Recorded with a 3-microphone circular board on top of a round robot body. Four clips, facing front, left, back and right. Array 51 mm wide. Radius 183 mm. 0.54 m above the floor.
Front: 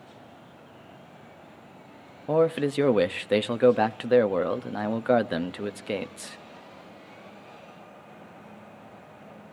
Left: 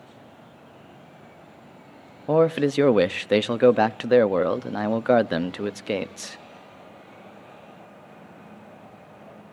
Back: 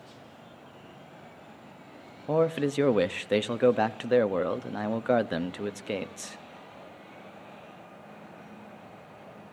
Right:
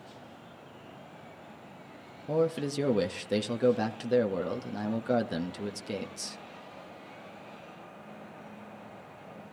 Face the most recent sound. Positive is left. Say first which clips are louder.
# left 9 dB, front 3 dB
turn(degrees=80)